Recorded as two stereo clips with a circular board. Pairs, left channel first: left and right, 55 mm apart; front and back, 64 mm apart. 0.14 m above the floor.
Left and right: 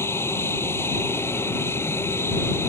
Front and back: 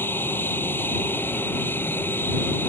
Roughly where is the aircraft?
Ahead left.